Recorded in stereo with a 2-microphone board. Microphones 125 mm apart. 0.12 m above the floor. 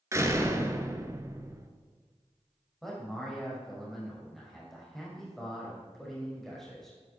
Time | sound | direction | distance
0.1 | a door slam | 25° right (ahead or behind) | 1.1 m
2.8 | a man speaking | centre (ahead or behind) | 5.5 m